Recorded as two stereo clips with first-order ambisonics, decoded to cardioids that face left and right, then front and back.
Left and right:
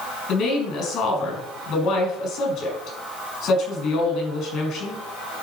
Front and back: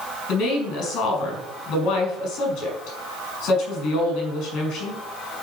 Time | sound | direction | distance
0.3 | a woman speaking | 45° left | 4.5 m